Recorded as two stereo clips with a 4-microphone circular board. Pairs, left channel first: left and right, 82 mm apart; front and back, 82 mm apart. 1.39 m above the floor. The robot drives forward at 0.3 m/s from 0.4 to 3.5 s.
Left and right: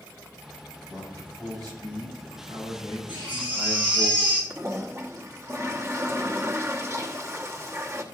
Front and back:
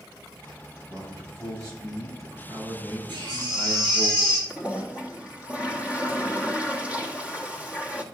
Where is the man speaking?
130° right, 5.5 m; by 4.1 s 135° right, 6 m.